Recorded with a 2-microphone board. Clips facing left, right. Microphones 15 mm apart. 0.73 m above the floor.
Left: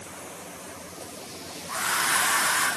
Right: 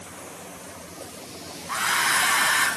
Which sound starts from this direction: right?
A hair dryer, at 1.7 s.